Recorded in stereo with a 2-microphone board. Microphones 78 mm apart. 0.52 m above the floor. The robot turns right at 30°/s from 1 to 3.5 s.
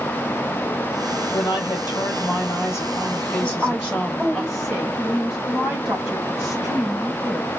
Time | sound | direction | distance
1.3 | a woman speaking | 100° left | 2 m
3.4 | a woman speaking | centre (ahead or behind) | 3.5 m